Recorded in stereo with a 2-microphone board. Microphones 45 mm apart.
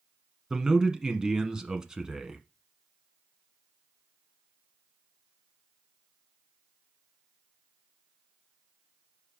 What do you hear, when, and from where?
0.5 s a man speaking: 15° right (ahead or behind), 1.1 m